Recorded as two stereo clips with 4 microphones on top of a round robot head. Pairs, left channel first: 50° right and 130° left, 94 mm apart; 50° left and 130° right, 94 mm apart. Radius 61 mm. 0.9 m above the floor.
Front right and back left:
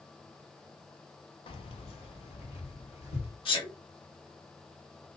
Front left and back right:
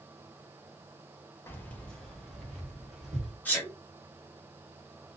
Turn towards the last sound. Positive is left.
turn(degrees=-20)